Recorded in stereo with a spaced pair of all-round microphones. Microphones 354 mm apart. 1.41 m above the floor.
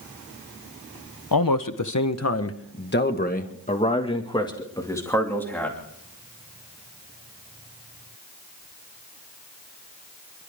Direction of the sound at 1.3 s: 70° left (ahead or behind).